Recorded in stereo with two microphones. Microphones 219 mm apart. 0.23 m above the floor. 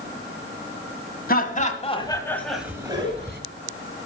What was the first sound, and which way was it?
Laughter, 45° left (ahead or behind).